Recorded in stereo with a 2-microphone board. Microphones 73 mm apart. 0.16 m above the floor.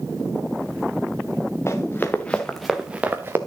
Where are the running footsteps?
35° left (ahead or behind), 1.5 m; by 3.4 s 35° right (ahead or behind), 1.2 m.